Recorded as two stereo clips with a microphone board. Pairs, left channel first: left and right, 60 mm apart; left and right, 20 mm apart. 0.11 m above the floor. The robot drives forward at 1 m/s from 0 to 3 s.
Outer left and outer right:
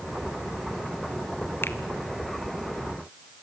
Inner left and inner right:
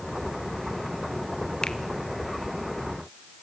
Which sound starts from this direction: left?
A finger snap, at 1.6 s.